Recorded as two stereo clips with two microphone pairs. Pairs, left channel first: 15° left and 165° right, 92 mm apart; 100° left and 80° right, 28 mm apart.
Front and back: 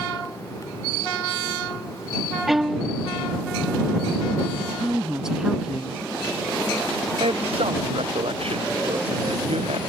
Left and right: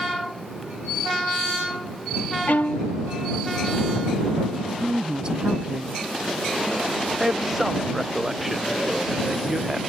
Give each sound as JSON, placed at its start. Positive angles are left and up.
{"t": 2.5, "sound": "a violin", "azimuth_deg": 105}
{"t": 4.6, "sound": "a woman speaking", "azimuth_deg": -90}
{"t": 7.2, "sound": "a man speaking", "azimuth_deg": -165}